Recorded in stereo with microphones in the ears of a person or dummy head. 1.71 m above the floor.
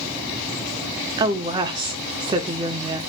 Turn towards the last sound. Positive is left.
turn(degrees=-30)  # may be behind; listen again after turning